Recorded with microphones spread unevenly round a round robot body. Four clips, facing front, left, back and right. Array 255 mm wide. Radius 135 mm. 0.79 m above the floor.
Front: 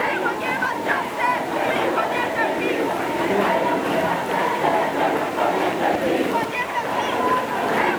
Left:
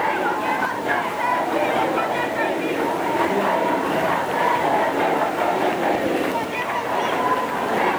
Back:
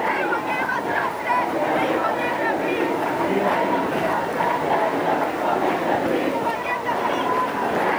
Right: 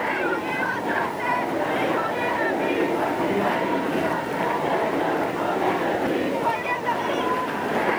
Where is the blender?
I don't hear a blender.